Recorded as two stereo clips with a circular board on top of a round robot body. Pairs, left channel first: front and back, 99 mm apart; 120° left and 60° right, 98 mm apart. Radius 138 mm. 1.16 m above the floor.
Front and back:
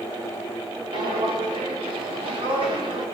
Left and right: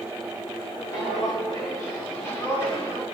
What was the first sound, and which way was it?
Footsteps, 165° left.